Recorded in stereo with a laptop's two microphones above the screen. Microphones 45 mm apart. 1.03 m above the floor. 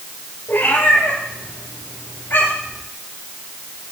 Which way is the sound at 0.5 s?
50° left (ahead or behind).